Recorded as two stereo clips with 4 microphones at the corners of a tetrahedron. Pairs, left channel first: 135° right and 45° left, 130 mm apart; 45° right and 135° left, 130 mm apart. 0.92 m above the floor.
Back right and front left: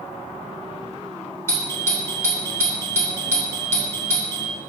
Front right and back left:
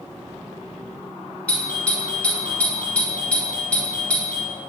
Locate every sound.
1.5 s a doorbell: 105° right, 1.2 m